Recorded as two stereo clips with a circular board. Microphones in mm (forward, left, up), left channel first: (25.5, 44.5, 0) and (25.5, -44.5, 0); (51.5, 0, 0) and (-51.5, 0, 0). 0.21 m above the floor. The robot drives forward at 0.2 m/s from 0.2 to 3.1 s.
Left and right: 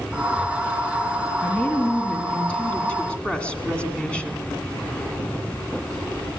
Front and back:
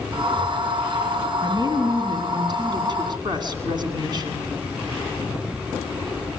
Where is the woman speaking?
160° left, 2 m.